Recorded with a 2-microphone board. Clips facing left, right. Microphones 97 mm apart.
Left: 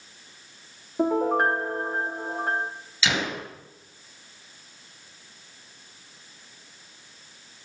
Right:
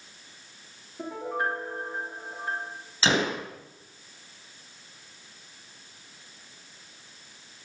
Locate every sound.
1.0 s a piano: 60° left (ahead or behind), 1.9 m
3.0 s a gunshot: 35° right (ahead or behind), 1.6 m